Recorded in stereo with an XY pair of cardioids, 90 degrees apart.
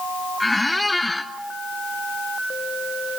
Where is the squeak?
15° left, 1.2 m.